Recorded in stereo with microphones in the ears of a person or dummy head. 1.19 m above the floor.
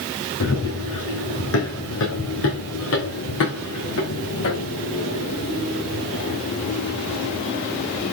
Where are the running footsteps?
75° left (ahead or behind), 5 m; by 8.1 s 60° left (ahead or behind), 8.5 m.